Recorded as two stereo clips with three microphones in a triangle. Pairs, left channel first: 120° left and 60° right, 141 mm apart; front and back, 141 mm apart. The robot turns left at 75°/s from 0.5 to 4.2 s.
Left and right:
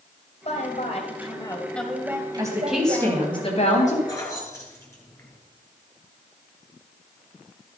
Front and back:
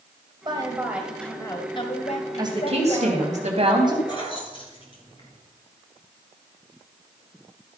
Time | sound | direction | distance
0.5 | a woman speaking | 135° left | 1.8 m
2.4 | a woman speaking | 120° right | 2.5 m
4.1 | keys jangling | 60° left | 3.5 m